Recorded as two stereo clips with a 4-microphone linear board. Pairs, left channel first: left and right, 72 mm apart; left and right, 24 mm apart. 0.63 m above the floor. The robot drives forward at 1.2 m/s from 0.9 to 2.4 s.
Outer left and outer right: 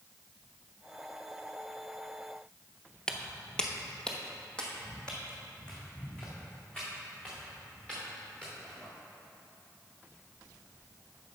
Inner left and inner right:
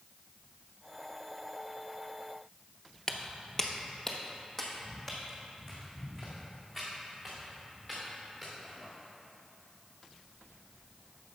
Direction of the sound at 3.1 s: 10° left (ahead or behind).